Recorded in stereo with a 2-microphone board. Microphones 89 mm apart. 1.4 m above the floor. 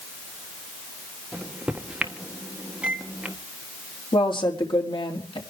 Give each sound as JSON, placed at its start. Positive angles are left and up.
{"t": 1.3, "sound": "a microwave", "side_deg": -15, "distance_m": 1.4}
{"t": 4.1, "sound": "a woman speaking", "side_deg": 80, "distance_m": 3.0}